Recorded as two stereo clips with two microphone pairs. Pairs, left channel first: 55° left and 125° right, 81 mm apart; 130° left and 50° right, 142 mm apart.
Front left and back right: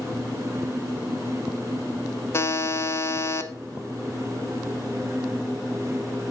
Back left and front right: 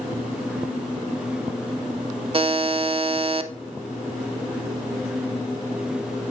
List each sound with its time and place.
2.3 s a buzzer: straight ahead, 0.8 m